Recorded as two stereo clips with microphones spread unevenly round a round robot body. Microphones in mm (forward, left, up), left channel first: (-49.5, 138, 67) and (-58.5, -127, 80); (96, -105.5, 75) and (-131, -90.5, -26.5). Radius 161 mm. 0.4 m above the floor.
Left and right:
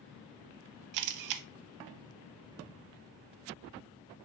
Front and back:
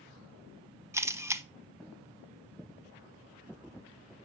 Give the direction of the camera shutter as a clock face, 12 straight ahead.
3 o'clock.